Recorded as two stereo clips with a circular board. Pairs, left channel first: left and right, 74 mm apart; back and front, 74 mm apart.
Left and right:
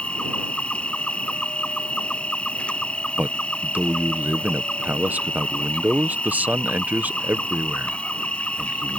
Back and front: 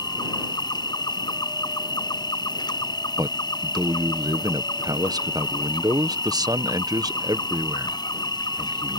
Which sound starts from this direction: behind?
An insect, at 0.0 s.